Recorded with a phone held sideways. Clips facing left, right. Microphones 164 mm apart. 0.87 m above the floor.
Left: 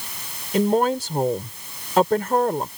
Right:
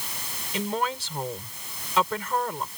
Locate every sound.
0.5 s a woman speaking: 45° left (ahead or behind)